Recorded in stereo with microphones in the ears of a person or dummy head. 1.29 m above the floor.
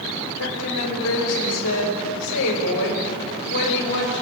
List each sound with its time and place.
0.4 s a woman speaking: 85° left, 6.5 m; by 4.2 s 65° left (ahead or behind), 7 m